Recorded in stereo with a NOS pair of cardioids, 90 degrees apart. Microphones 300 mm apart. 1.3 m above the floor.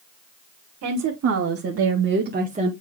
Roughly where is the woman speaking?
Right.